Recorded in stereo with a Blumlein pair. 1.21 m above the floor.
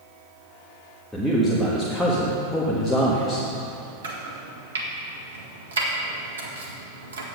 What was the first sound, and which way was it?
A man speaking, 5° left.